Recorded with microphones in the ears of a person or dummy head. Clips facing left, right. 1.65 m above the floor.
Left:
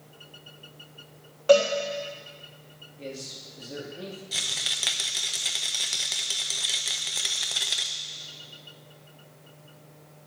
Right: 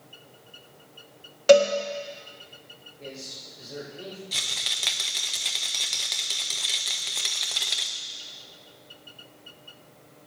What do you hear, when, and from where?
1.5 s a cowbell: 25° right (ahead or behind), 1.3 m
3.0 s a man speaking: 40° left (ahead or behind), 4 m
4.3 s a rattle: centre (ahead or behind), 0.5 m